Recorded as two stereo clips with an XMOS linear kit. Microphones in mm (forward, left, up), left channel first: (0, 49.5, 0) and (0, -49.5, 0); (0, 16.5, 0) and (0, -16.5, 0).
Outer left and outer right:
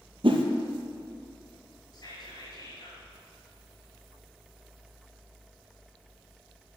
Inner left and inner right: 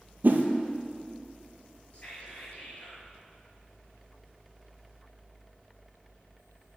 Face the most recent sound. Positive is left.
turn(degrees=45)  # may be behind; listen again after turning